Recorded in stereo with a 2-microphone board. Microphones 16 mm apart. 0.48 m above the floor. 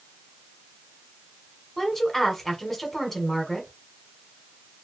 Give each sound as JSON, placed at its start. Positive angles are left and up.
{"t": 1.8, "sound": "a woman speaking", "side_deg": 15, "distance_m": 1.2}